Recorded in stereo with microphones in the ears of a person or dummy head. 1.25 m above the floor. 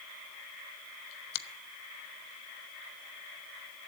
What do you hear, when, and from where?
1.3 s a finger snap: 65° left (ahead or behind), 1.0 m